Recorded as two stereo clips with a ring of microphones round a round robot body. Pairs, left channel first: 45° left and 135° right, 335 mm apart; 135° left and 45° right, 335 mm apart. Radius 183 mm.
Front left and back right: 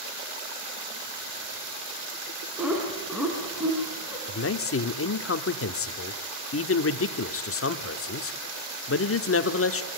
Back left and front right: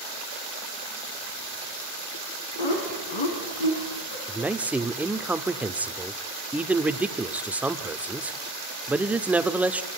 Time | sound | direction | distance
2.6 | laughter | 140° left | 4 m
4.3 | a man speaking | 40° left | 1.1 m